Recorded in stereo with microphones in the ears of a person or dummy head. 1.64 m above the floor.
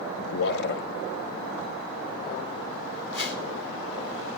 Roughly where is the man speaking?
Left.